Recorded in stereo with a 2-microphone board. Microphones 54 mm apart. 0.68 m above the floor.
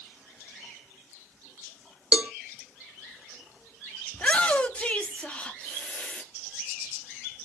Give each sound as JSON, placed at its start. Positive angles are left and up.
{"t": 2.1, "sound": "a cowbell", "side_deg": -20, "distance_m": 0.6}
{"t": 4.1, "sound": "a shout", "side_deg": 20, "distance_m": 0.7}